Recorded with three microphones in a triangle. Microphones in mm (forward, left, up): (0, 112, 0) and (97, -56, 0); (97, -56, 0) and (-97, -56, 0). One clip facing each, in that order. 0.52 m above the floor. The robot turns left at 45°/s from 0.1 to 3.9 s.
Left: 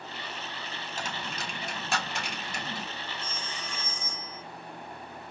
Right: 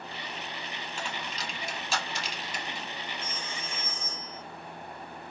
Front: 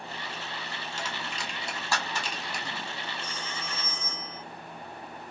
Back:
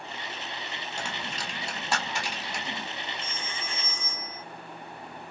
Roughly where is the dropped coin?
Behind.